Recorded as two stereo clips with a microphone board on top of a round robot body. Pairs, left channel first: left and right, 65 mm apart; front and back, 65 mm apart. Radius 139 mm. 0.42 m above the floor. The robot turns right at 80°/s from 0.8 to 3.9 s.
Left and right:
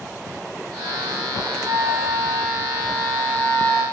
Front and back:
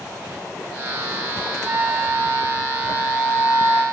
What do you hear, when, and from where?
1.6 s a flute: 115° right, 1.4 m; by 3.8 s 60° left, 1.4 m